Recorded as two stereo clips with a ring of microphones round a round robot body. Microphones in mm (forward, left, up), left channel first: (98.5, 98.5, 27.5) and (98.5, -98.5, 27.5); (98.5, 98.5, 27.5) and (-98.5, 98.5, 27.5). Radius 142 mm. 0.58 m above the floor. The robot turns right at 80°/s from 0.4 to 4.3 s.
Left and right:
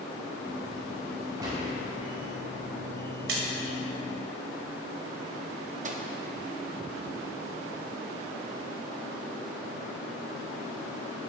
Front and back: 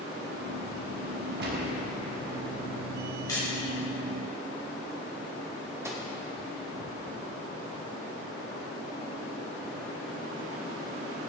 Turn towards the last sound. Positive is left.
turn(degrees=-110)